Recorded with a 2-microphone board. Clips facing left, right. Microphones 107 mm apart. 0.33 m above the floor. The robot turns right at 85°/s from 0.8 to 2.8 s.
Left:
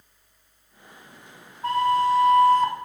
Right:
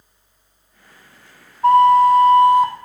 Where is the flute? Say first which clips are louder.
Right 10 dB; 95° right, 0.6 m; by 2.7 s straight ahead, 0.6 m.